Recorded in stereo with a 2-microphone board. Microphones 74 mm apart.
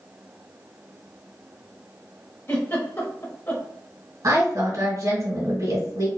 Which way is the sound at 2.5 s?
30° left (ahead or behind).